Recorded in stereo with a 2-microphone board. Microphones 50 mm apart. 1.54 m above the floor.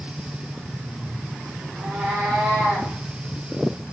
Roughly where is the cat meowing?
Right.